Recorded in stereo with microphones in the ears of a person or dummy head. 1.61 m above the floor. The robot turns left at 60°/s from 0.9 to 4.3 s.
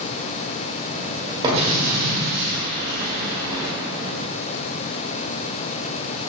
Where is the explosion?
20° right, 0.8 m; by 3.7 s 155° right, 0.8 m.